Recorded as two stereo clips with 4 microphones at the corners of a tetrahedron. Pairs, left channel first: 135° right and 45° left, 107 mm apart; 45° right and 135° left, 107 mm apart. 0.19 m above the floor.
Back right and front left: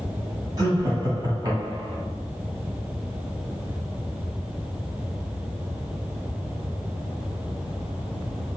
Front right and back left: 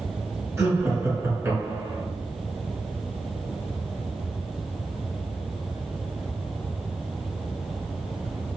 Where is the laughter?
85° left, 1.6 m.